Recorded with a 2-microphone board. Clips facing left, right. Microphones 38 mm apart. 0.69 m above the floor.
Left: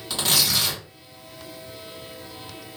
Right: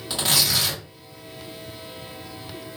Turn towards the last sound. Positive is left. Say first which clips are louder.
# even
turn(degrees=0)  # may be behind; listen again after turning